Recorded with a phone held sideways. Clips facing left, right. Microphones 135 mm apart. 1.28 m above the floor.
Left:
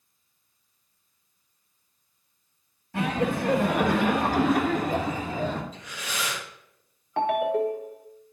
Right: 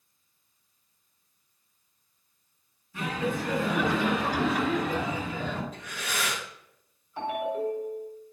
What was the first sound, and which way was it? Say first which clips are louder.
Laughter: left 4 dB; 70° left (ahead or behind).